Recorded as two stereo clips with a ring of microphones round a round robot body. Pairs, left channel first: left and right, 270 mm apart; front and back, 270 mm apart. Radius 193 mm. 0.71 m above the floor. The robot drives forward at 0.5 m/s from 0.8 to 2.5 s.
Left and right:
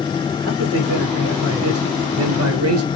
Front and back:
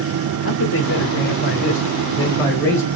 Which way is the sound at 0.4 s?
45° right.